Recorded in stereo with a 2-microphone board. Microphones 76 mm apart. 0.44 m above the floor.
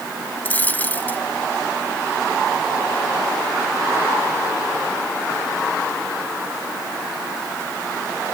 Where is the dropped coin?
25° left (ahead or behind).